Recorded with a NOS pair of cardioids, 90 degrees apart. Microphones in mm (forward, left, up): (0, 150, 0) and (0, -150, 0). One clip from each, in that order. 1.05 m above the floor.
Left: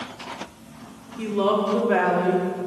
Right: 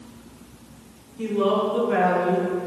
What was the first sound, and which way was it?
A woman speaking, 60° left.